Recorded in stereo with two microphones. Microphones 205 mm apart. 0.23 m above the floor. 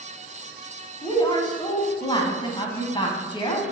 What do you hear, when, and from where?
1.0 s a woman speaking: 25° left (ahead or behind), 1.4 m